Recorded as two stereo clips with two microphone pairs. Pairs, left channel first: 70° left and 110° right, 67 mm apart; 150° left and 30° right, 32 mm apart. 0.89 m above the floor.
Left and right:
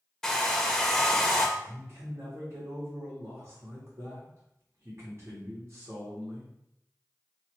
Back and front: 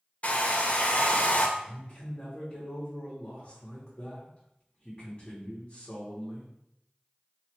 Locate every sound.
0.2 s a hair dryer: 155° left, 0.7 m
1.6 s a man speaking: 140° right, 1.5 m